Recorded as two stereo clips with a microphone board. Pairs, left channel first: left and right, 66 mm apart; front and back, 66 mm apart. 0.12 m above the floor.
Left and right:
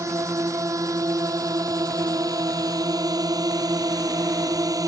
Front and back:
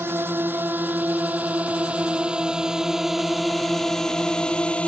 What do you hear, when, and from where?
0.0 s a drone: 125° right; by 4.9 s 70° right